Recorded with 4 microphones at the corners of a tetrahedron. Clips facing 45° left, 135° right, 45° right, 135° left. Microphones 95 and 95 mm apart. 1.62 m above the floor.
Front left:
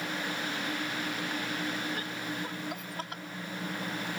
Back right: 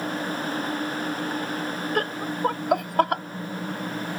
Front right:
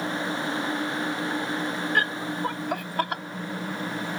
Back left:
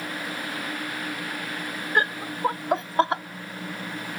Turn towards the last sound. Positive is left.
turn(degrees=-160)